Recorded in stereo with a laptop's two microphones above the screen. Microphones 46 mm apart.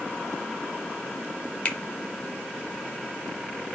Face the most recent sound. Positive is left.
turn(degrees=30)  # may be behind; listen again after turning